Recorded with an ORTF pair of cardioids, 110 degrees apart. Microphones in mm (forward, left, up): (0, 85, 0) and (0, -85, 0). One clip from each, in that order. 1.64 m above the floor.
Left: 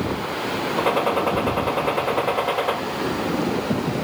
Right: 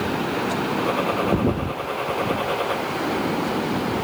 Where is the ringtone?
I don't hear a ringtone.